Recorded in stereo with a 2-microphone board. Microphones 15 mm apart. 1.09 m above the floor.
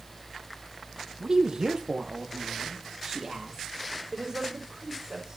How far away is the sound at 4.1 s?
About 3.5 m.